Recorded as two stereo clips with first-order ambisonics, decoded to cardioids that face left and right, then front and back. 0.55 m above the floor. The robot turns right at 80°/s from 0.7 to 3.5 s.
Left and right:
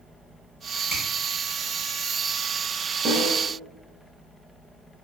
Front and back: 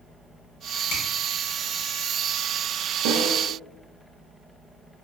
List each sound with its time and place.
0.9 s a finger snap: straight ahead, 1.3 m; by 1.1 s 15° left, 1.3 m
3.0 s a snare drum: 155° right, 0.7 m; by 3.4 s 125° right, 0.7 m